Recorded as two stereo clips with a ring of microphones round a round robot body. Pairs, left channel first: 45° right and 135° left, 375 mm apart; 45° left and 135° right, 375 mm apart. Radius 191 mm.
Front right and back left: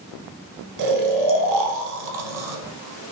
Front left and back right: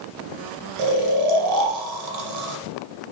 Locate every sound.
0.8 s snoring: straight behind, 1.0 m